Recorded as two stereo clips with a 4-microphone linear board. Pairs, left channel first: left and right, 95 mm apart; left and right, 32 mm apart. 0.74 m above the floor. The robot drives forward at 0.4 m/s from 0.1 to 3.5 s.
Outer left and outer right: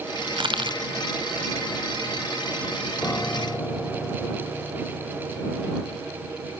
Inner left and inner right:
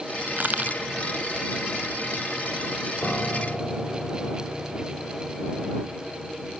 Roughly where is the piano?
Left.